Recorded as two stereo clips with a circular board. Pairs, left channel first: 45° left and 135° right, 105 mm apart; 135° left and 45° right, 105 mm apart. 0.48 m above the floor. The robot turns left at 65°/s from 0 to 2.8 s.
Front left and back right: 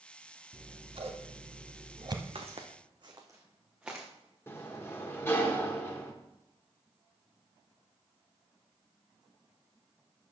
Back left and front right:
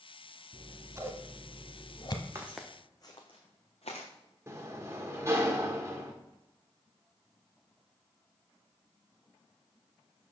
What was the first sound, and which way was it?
Scissors, 75° right.